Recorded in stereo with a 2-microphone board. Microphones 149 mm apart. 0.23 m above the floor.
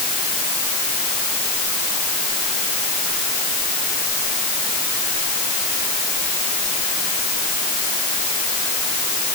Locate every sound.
Only background noise.